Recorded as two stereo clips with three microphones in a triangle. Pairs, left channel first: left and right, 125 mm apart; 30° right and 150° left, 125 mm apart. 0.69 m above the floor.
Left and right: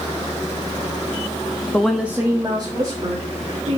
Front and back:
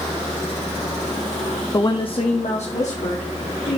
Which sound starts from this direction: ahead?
A woman speaking, at 1.7 s.